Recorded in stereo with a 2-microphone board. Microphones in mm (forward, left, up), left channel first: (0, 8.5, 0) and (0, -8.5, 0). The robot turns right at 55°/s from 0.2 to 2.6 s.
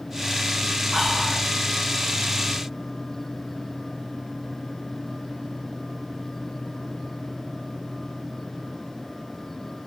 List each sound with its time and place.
0.9 s whispering: 10° right (ahead or behind), 1.1 m; by 1.5 s 5° left (ahead or behind), 1.1 m